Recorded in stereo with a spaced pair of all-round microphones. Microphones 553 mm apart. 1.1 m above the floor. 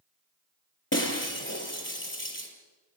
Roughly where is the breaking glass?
Left.